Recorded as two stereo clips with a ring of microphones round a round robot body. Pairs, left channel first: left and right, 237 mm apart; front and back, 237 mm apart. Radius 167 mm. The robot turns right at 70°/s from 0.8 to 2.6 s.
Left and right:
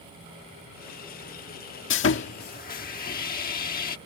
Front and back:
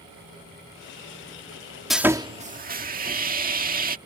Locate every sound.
1.9 s sawing: 90° left; by 4.0 s 140° left